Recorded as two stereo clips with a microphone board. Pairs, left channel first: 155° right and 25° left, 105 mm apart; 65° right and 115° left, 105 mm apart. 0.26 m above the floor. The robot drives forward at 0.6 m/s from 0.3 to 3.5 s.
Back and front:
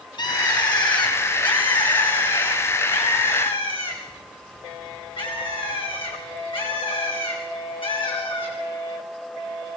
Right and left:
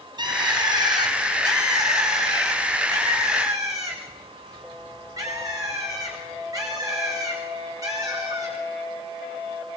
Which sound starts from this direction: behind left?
A bird, at 0.2 s.